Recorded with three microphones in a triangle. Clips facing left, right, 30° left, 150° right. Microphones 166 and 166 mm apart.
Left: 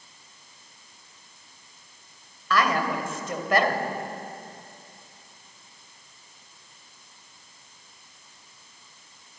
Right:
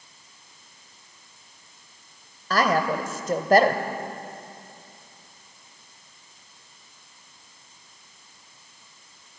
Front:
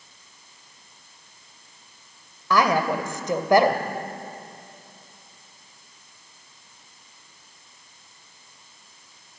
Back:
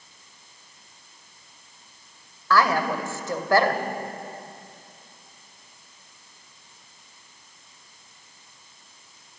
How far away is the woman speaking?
About 1.8 m.